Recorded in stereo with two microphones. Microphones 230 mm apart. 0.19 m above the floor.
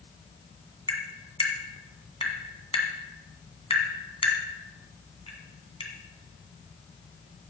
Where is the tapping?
25° left (ahead or behind), 2 m.